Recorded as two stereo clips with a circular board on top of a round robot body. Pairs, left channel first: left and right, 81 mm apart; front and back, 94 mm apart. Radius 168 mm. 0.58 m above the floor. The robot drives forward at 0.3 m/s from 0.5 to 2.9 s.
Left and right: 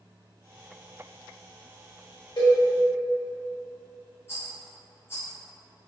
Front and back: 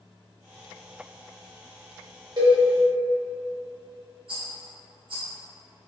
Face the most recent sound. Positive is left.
turn(degrees=150)